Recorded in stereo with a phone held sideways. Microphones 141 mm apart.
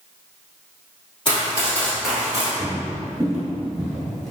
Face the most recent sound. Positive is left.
turn(degrees=5)  # may be behind; listen again after turning